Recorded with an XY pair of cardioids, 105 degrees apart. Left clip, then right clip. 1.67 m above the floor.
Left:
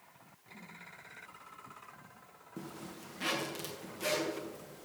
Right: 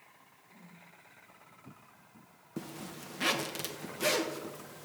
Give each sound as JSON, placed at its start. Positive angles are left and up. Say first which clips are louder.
{"t": 0.5, "sound": "a whoosh", "louder": "left 7 dB", "azimuth_deg": 25, "distance_m": 4.5}
{"t": 2.6, "sound": "a zipper", "louder": "right 3 dB", "azimuth_deg": -45, "distance_m": 1.4}